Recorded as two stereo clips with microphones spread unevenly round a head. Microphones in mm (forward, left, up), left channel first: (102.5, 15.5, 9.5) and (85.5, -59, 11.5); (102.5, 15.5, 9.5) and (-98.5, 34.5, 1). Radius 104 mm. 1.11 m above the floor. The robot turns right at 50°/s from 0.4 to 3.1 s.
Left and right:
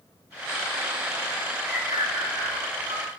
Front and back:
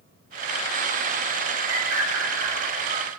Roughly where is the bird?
Behind.